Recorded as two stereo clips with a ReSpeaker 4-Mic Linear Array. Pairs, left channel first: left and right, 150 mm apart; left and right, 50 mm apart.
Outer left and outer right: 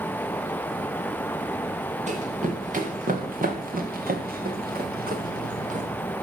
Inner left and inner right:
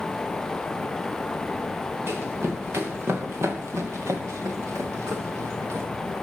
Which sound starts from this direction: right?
Running footsteps, at 2.1 s.